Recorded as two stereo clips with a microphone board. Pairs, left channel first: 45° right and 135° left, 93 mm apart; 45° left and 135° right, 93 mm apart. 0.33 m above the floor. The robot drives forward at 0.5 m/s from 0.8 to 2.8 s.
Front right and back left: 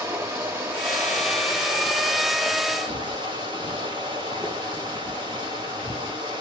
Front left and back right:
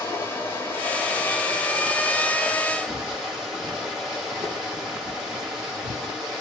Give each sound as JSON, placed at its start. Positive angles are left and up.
{"t": 0.0, "sound": "running water", "azimuth_deg": 90, "distance_m": 1.3}
{"t": 2.9, "sound": "footsteps", "azimuth_deg": 135, "distance_m": 1.0}